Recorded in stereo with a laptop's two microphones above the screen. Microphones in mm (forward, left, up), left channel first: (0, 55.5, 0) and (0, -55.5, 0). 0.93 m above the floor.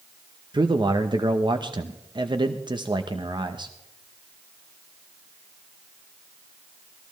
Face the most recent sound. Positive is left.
turn(degrees=-45)  # may be behind; listen again after turning